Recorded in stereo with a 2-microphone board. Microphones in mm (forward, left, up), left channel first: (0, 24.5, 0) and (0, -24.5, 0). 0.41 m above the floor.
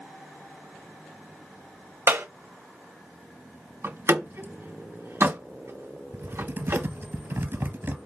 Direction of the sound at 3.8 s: 60° right (ahead or behind).